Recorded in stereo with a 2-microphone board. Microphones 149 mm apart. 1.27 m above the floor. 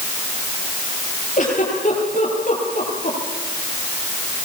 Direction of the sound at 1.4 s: 60° left (ahead or behind).